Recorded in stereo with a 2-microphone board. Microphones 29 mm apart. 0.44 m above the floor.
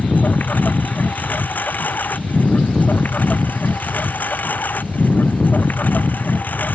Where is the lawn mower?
85° left.